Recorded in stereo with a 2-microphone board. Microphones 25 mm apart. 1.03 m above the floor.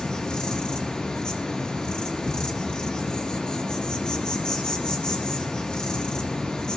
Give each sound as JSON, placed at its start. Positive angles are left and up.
{"t": 0.0, "sound": "an insect", "side_deg": 35, "distance_m": 3.0}